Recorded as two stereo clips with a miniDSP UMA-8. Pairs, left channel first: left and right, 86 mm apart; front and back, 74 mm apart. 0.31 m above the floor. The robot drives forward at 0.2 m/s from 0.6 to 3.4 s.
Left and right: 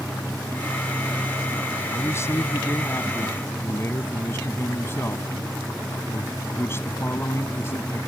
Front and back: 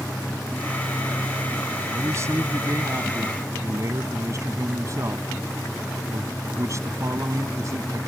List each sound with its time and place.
1.9 s a man speaking: 140° left; by 8.1 s 145° left